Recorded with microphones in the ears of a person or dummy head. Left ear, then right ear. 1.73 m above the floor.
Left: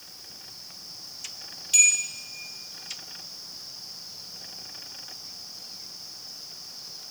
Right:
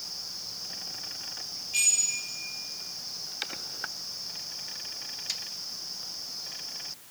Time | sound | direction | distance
1.7 | a bell | 80° left | 3 m